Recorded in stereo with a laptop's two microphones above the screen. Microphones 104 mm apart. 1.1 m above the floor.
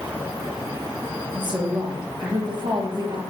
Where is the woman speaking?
45° right (ahead or behind), 0.8 m.